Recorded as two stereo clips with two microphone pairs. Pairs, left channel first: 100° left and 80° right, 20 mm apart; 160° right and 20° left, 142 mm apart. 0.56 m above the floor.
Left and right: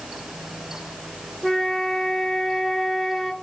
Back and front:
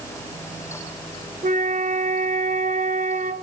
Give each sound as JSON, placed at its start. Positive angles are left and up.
{"t": 1.4, "sound": "a flute", "azimuth_deg": 0, "distance_m": 1.7}